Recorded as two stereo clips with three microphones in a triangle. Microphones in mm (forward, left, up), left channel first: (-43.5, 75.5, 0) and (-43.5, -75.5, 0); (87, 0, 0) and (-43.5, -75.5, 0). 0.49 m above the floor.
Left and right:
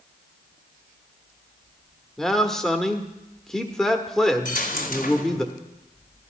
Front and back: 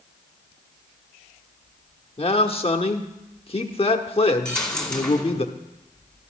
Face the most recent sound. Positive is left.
turn(degrees=115)